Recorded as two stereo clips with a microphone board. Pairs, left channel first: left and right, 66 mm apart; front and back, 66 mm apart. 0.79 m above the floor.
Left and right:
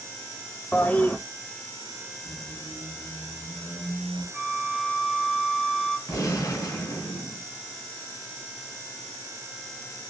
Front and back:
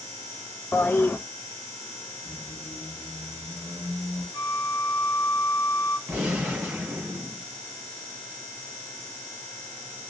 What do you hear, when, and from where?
0.7 s a toilet flushing: 40° left, 0.6 m
2.2 s a squeak: 90° left, 3 m
4.3 s a flute: straight ahead, 0.5 m
6.1 s a gunshot: 110° left, 3 m